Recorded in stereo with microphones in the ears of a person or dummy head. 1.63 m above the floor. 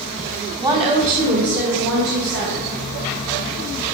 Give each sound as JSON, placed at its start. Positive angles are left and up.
{"t": 0.6, "sound": "a woman speaking", "side_deg": -15, "distance_m": 1.2}